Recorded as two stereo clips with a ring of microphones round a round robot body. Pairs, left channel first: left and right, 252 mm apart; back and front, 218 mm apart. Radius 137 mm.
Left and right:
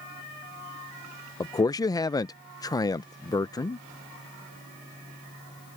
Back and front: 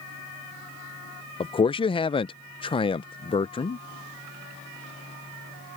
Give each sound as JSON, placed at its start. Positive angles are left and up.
{"t": 1.4, "sound": "a man speaking", "azimuth_deg": 145}